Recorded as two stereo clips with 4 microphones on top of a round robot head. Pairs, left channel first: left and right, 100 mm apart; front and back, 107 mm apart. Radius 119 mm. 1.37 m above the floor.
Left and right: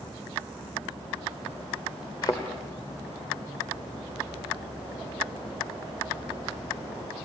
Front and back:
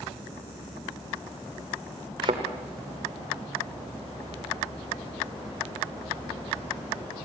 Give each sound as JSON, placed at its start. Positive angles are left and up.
{"t": 2.2, "sound": "a thud", "azimuth_deg": 155, "distance_m": 1.2}